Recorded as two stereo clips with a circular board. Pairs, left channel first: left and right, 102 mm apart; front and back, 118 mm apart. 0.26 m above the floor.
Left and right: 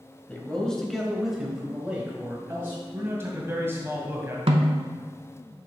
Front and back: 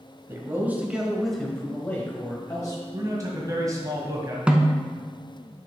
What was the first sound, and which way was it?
A man speaking, 150° left.